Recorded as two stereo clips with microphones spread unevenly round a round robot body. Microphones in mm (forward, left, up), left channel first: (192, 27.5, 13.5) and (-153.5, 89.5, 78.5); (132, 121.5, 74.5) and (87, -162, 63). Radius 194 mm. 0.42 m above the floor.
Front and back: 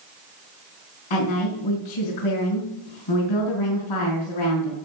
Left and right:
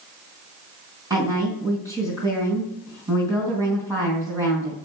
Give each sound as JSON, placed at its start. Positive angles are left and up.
{"t": 1.1, "sound": "a woman speaking", "azimuth_deg": -20, "distance_m": 4.0}